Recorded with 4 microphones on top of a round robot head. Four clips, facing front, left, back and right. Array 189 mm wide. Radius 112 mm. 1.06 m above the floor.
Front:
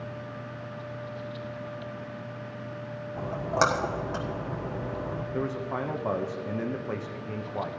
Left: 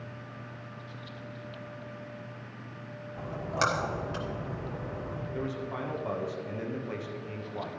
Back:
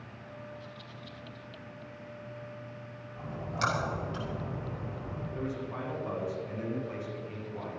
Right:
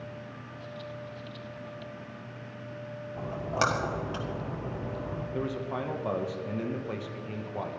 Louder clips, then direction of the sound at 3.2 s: Right 1 dB, front 9 dB; 20° right.